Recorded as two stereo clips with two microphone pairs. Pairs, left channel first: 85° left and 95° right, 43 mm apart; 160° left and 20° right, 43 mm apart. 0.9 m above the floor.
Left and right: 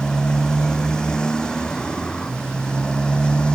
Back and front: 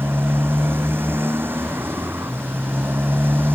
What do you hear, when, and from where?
0.0 s a motorcycle: 10° left; by 3.5 s 15° left